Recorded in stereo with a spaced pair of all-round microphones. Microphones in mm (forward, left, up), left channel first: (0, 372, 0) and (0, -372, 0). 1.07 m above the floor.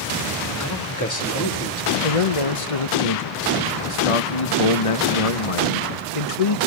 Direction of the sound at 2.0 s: 45° left (ahead or behind).